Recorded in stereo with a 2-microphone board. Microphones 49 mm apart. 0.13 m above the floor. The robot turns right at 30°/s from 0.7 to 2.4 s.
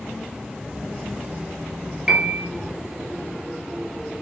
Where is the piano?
15° right (ahead or behind), 0.7 m; by 2.5 s 25° right (ahead or behind), 0.7 m.